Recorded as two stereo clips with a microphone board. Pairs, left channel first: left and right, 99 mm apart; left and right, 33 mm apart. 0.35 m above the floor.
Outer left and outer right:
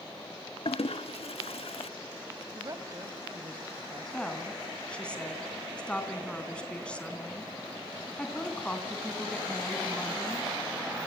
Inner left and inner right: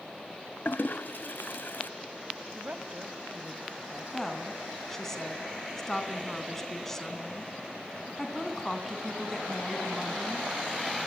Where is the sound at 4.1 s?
10° left (ahead or behind), 3 m.